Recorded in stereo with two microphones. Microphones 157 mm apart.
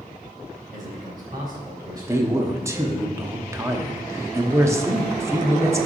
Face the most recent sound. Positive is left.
turn(degrees=-20)  # may be behind; listen again after turning